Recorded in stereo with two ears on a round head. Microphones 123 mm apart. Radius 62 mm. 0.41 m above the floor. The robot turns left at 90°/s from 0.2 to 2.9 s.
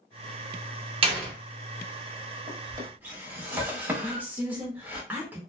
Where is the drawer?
50° right (ahead or behind), 0.9 m; by 5.0 s 15° right (ahead or behind), 0.9 m.